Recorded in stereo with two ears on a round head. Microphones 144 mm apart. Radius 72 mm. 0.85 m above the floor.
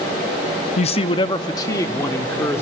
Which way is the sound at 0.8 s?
45° left (ahead or behind).